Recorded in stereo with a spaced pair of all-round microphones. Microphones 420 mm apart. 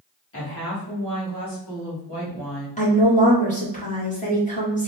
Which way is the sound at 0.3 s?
30° left (ahead or behind).